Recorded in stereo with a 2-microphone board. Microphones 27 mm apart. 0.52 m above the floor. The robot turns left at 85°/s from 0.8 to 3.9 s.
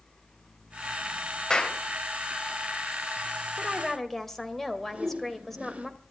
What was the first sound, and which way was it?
A clap, 25° left (ahead or behind).